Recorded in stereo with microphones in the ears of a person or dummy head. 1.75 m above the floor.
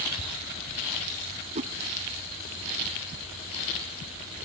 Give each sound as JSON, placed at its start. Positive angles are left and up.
{"t": 1.6, "sound": "a whoosh", "side_deg": -35}